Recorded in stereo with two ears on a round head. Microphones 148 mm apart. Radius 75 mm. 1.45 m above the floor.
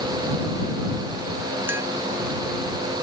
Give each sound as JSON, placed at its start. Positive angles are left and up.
{"t": 1.7, "sound": "tapping", "side_deg": -15}